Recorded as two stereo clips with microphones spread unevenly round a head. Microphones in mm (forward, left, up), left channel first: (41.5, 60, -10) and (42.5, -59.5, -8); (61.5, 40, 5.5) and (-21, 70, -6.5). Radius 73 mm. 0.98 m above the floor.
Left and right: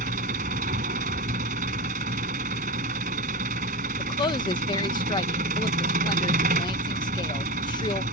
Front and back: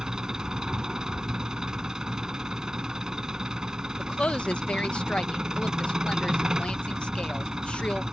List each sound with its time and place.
0.0 s an engine running: 115° right
4.0 s a woman speaking: 60° left